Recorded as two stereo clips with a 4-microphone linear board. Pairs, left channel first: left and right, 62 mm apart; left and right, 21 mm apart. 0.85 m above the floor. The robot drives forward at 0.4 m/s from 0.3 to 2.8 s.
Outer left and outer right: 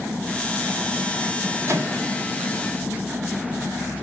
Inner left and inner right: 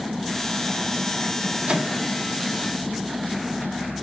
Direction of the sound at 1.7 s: 55° right (ahead or behind).